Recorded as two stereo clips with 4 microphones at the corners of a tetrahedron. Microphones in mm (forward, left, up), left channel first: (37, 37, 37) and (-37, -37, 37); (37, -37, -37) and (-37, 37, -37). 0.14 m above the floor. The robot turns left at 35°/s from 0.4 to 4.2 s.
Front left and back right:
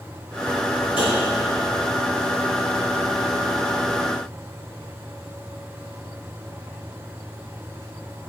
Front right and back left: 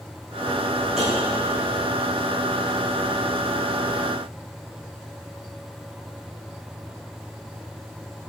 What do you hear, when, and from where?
1.0 s tapping: 55° left, 1.3 m; by 1.1 s 50° left, 1.3 m